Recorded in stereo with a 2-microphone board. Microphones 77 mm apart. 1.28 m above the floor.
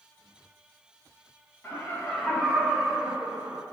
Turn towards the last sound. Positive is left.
turn(degrees=-45)  # may be behind; listen again after turning